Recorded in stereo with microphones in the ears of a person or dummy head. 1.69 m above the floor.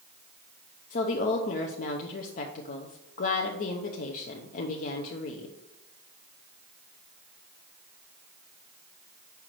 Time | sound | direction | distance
0.9 | a woman speaking | 45° left (ahead or behind) | 0.7 m